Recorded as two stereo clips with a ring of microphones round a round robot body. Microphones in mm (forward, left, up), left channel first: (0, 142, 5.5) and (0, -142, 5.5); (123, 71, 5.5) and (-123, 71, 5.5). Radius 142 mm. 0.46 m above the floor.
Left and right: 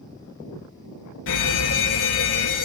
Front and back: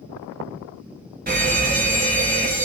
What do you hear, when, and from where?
1.3 s a fire alarm: 130° left, 5.5 m